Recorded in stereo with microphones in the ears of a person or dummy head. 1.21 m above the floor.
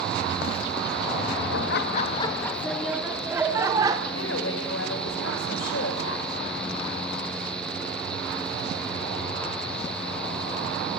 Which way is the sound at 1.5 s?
70° left (ahead or behind).